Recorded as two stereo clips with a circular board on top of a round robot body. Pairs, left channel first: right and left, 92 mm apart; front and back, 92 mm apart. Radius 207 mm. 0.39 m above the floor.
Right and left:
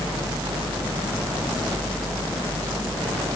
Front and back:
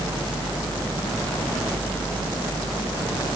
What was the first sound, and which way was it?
Only background noise.